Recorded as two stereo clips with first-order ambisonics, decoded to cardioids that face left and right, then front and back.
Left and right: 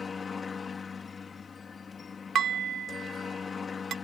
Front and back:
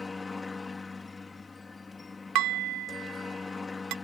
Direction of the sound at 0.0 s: 55° left.